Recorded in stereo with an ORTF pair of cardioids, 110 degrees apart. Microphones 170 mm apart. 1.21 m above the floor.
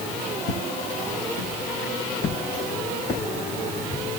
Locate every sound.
0.5 s footsteps: 70° left, 4.5 m; by 4.0 s 35° left, 5 m